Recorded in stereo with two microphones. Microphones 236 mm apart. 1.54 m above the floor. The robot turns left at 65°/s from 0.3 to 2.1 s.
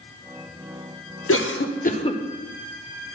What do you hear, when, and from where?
1.3 s a cough: 70° left (ahead or behind), 0.9 m; by 2.2 s 20° left (ahead or behind), 0.9 m